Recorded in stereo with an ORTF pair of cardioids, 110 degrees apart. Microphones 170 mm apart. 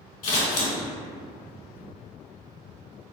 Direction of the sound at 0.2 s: 55° left.